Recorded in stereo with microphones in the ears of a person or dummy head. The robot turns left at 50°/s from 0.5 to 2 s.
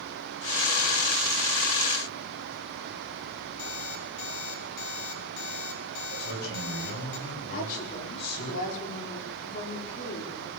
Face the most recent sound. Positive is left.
turn(degrees=50)  # may be behind; listen again after turning